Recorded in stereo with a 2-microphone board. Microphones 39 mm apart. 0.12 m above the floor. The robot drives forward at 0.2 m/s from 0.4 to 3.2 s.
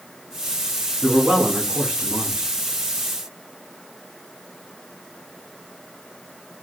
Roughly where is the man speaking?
Right.